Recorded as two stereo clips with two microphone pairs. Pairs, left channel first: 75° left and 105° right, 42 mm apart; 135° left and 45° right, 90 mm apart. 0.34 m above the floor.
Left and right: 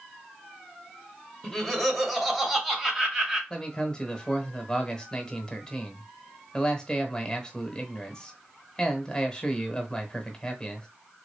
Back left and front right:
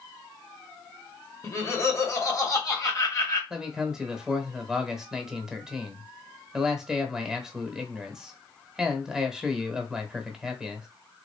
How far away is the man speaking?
About 0.9 m.